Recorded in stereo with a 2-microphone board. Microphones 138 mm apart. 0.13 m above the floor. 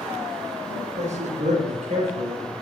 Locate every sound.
0.7 s a man speaking: 65° right (ahead or behind), 4 m